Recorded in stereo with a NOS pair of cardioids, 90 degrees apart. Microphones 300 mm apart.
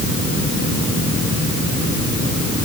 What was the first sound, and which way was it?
Only background noise.